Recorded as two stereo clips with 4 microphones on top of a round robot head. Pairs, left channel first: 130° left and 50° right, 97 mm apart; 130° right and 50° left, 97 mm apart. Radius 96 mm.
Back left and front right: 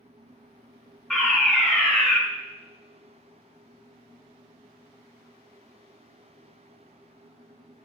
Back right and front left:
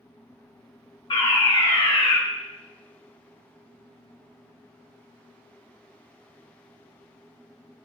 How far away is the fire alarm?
About 3 m.